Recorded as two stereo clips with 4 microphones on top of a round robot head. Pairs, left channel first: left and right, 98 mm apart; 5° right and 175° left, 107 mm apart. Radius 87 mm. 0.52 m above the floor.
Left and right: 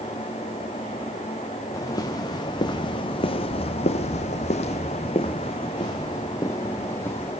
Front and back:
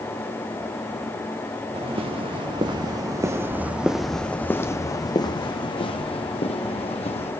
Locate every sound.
1.7 s footsteps: 140° left, 2.5 m; by 7.3 s 15° left, 3 m